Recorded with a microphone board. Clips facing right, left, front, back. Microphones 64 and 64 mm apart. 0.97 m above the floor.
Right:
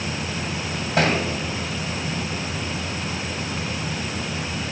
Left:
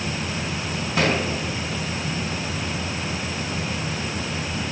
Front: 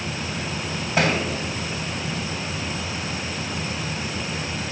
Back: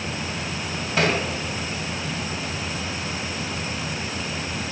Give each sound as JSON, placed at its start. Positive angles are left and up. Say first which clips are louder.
{"t": 1.0, "sound": "a thud", "louder": "right 1 dB, front 1 dB", "azimuth_deg": -70, "distance_m": 3.0}